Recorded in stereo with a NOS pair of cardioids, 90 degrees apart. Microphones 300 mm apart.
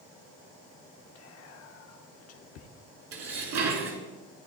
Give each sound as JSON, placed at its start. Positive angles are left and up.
{"t": 1.1, "sound": "whispering", "azimuth_deg": 55, "distance_m": 1.0}
{"t": 3.1, "sound": "dishes clattering", "azimuth_deg": -65, "distance_m": 3.0}